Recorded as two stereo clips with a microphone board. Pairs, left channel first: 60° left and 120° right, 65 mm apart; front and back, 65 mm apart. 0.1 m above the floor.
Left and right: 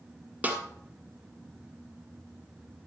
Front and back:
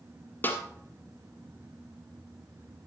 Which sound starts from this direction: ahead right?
A snare drum, at 0.4 s.